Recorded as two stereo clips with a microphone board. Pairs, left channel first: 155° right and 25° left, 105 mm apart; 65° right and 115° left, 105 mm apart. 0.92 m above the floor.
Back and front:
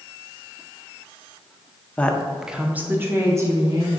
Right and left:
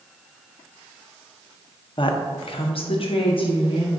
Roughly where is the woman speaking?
Right.